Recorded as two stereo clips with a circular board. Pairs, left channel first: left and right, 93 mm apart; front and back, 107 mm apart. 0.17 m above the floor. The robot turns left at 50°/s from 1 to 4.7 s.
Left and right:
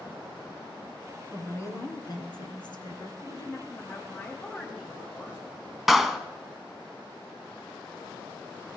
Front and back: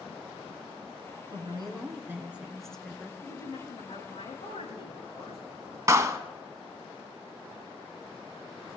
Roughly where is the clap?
Behind.